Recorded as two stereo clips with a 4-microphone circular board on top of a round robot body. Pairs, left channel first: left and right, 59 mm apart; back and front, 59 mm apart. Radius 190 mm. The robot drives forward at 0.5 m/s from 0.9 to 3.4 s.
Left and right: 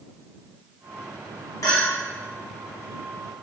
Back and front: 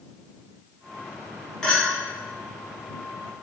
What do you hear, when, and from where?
1.6 s a clink: 100° left, 1.6 m; by 1.8 s 105° left, 1.6 m